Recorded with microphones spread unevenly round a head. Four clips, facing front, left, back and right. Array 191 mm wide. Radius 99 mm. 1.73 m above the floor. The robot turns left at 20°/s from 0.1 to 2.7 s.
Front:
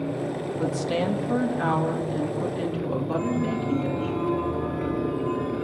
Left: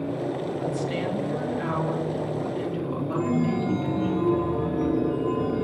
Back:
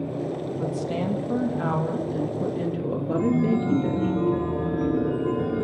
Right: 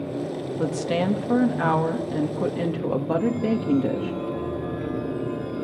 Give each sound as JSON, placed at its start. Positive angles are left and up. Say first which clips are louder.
{"t": 0.6, "sound": "a woman speaking", "louder": "right 3 dB, front 4 dB", "azimuth_deg": -65, "distance_m": 3.0}
{"t": 3.1, "sound": "a chime", "louder": "left 1 dB, back 7 dB", "azimuth_deg": 140, "distance_m": 1.6}